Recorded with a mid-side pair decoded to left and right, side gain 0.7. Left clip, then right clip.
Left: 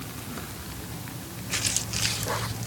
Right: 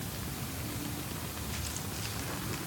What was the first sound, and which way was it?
Only background noise.